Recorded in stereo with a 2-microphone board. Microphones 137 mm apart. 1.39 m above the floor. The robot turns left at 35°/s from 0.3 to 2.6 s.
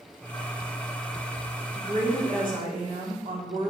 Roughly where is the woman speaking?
Right.